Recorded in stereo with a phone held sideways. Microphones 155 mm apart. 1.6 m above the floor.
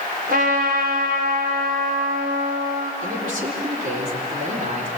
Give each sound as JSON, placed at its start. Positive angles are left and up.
{"t": 0.3, "sound": "a trumpet", "side_deg": -85, "distance_m": 5.5}
{"t": 3.0, "sound": "a man speaking", "side_deg": -65, "distance_m": 4.0}